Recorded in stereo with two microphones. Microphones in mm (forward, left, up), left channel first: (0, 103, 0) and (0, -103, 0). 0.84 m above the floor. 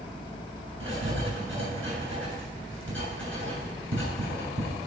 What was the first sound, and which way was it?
Writing, 75° right (ahead or behind).